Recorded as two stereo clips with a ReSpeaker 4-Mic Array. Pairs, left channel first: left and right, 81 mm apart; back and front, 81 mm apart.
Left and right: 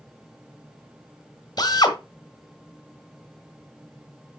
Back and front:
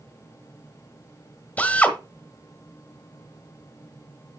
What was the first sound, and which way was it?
A drill, 115° left.